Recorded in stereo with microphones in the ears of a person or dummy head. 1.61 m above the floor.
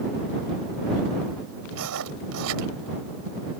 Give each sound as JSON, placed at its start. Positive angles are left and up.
{"t": 1.7, "sound": "writing", "side_deg": -85}